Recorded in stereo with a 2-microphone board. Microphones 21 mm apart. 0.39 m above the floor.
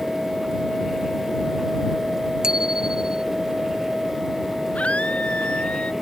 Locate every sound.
2.4 s a bicycle bell: 35° right (ahead or behind)
4.8 s a scream: 80° left